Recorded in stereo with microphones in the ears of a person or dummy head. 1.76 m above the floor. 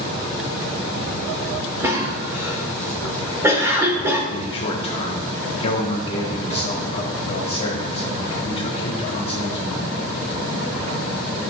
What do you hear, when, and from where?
1.8 s a cough: 15° right (ahead or behind), 1.4 m
4.3 s a man speaking: 30° left (ahead or behind), 1.4 m